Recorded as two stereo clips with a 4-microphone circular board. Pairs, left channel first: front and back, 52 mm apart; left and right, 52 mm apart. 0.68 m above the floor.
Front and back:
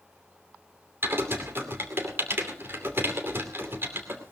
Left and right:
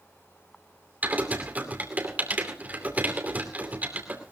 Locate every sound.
1.0 s typing on a keyboard: 145° right, 2.5 m